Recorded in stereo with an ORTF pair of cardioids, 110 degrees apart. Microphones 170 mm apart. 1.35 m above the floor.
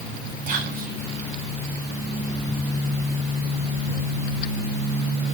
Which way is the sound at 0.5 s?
50° right.